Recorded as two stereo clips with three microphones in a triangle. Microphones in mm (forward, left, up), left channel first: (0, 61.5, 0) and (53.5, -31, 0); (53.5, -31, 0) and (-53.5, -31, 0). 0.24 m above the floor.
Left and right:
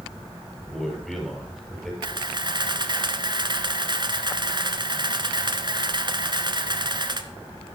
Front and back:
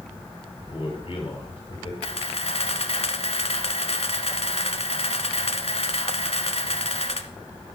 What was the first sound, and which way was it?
A man speaking, 30° left.